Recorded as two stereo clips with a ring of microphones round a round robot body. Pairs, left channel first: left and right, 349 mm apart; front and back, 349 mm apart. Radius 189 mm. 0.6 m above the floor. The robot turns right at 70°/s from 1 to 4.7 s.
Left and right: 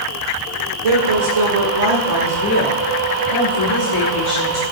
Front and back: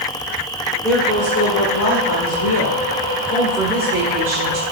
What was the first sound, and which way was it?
A woman speaking, 85° right.